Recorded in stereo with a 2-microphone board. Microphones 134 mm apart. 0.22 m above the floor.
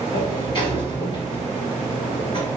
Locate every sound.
0.1 s a sliding door: 40° left (ahead or behind), 3 m